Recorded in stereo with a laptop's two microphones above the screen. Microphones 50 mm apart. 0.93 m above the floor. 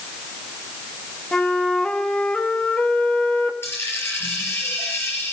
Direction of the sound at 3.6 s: 55° left (ahead or behind).